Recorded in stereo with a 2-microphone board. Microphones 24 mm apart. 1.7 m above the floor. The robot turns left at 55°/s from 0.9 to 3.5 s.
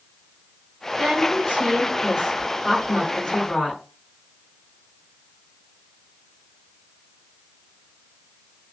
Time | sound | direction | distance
1.0 | a woman speaking | 65° right | 1.3 m